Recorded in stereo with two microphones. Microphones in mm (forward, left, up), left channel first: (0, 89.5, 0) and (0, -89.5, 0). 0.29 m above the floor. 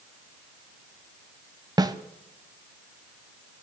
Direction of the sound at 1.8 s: 20° right (ahead or behind).